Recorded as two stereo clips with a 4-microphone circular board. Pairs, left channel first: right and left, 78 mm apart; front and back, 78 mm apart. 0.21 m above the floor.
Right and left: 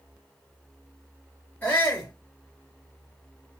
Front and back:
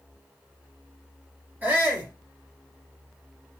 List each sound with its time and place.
1.6 s a shout: 140° right, 1.1 m